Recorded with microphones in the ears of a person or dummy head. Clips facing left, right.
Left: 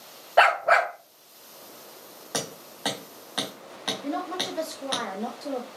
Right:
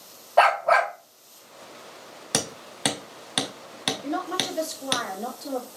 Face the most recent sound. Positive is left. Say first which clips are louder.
# right 1 dB
turn(degrees=0)  # may be behind; listen again after turning